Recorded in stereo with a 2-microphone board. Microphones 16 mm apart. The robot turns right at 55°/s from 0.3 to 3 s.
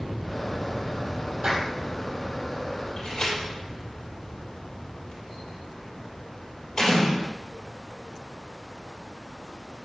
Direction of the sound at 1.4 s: 35° right (ahead or behind).